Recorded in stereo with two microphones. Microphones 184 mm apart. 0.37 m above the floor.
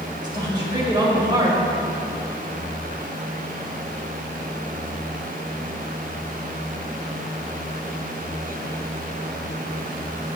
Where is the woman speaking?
25° right (ahead or behind), 1.7 m.